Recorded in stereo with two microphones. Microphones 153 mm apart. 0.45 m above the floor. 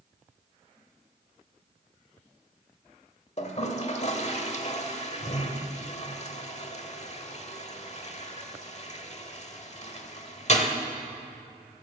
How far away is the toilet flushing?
About 1.1 m.